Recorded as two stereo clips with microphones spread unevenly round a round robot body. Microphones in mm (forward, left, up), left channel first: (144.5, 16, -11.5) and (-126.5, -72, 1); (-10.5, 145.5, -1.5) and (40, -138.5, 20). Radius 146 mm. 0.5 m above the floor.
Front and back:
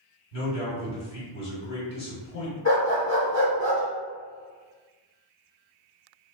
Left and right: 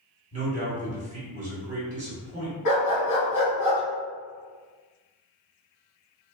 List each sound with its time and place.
0.3 s a man speaking: 15° right, 1.7 m
2.6 s a dog barking: 70° left, 2.0 m